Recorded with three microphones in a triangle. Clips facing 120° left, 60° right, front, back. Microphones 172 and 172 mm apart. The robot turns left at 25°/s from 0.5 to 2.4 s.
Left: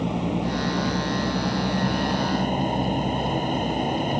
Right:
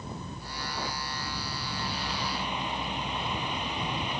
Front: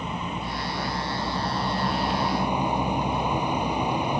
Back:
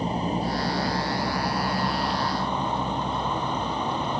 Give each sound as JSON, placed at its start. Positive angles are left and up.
{"t": 0.0, "sound": "a vehicle", "azimuth_deg": 125}